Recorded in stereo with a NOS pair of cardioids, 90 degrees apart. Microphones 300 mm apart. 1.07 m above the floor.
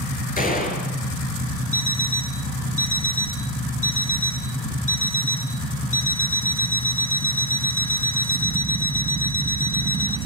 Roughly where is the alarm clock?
Ahead left.